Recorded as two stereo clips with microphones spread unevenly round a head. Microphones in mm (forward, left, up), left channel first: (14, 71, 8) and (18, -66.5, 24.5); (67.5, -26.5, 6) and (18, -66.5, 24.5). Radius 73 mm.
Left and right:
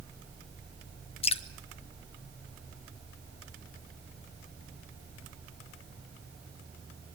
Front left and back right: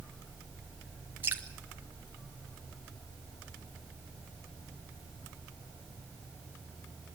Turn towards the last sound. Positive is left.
turn(degrees=140)